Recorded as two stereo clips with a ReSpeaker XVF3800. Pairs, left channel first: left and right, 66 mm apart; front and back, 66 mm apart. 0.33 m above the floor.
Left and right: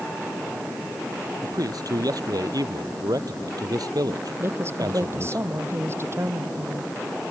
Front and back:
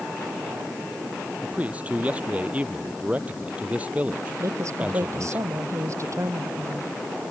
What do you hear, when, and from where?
1.4 s a man speaking: 110° right
4.4 s a woman speaking: 140° right